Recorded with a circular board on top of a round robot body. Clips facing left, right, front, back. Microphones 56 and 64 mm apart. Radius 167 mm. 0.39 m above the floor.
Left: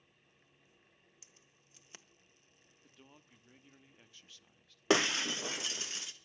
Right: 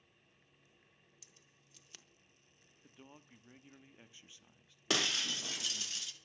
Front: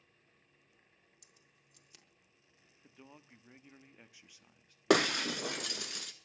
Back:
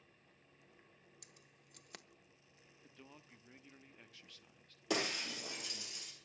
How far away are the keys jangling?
About 1.5 m.